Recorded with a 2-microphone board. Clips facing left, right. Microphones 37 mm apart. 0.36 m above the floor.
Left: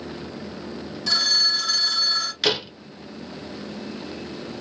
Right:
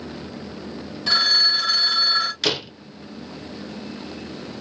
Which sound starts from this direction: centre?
A door slam, at 2.4 s.